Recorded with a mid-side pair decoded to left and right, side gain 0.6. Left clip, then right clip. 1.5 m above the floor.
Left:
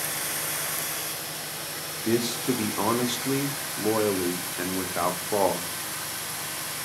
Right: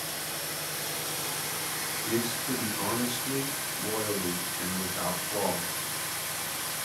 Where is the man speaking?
55° left, 0.5 m.